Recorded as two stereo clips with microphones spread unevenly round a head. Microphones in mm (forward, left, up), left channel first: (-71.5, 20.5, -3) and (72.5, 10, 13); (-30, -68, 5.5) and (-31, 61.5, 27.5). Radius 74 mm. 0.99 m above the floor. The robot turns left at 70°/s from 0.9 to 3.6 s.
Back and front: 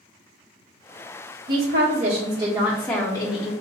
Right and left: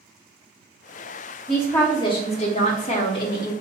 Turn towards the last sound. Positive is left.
turn(degrees=-155)